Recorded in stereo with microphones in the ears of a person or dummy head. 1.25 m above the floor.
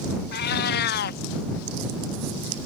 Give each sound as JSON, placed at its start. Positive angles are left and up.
{"t": 0.3, "sound": "a cat meowing", "side_deg": 60}